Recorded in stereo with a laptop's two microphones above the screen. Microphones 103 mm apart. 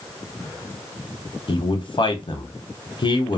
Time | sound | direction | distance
1.5 | a man speaking | 50° left (ahead or behind) | 0.6 m